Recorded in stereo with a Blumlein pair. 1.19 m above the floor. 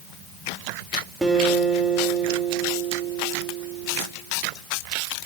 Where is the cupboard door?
No cupboard door in this recording.